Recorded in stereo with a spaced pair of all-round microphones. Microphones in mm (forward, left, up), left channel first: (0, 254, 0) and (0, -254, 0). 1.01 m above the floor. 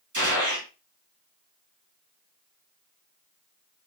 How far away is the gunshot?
About 2 m.